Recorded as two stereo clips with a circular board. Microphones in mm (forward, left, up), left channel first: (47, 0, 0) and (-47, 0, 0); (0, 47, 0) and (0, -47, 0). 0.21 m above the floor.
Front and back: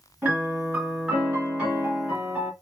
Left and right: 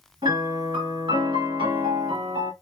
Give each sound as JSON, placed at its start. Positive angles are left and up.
{"t": 0.2, "sound": "a piano", "azimuth_deg": -105, "distance_m": 2.0}